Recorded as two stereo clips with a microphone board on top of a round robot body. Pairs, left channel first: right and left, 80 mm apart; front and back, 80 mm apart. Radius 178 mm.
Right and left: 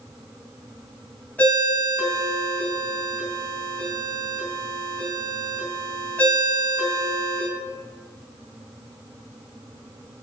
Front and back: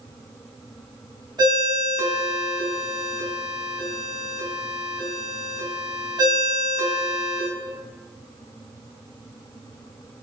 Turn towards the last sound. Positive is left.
turn(degrees=-155)